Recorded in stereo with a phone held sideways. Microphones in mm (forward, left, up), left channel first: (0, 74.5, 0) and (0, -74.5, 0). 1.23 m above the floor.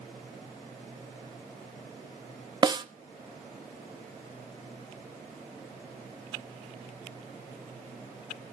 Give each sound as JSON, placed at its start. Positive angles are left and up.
{"t": 2.6, "sound": "a snare drum", "side_deg": -30, "distance_m": 0.7}